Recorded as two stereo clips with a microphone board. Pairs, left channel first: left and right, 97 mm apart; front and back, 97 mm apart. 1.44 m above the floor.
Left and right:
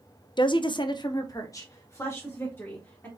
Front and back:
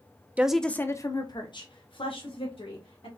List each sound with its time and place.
0.4 s a woman speaking: 110° left, 0.5 m; by 3.1 s 20° left, 2 m